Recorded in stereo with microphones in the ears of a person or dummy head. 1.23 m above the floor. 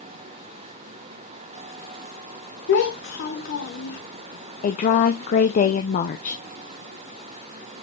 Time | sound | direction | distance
2.7 | a child speaking | 55° left (ahead or behind) | 1.2 m
4.6 | a woman speaking | 35° left (ahead or behind) | 0.5 m